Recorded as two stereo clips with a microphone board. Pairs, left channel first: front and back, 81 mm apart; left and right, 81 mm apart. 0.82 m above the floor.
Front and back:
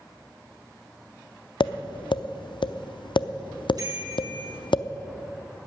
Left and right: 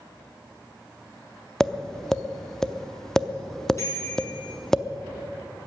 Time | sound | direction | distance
1.6 | tapping | 5° left | 0.5 m
3.8 | a bicycle bell | 140° left | 7 m